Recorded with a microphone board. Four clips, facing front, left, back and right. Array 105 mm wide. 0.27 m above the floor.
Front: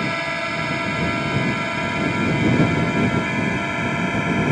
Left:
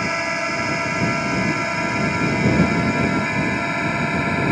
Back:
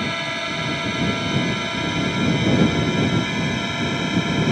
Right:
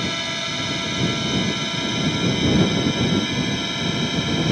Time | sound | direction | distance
0.0 | a drone | 70° left | ?